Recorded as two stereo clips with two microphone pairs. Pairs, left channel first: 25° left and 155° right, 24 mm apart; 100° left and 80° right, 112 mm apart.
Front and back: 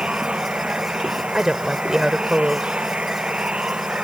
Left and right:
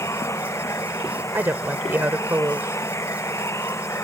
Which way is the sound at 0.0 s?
165° left.